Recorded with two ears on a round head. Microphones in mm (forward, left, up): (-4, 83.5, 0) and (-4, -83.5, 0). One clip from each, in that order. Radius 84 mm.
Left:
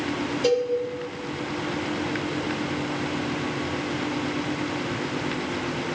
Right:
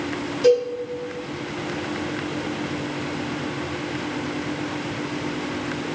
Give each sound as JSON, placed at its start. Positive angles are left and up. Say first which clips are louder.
{"t": 0.4, "sound": "a cowbell", "louder": "right 6 dB", "side_deg": -20, "distance_m": 1.4}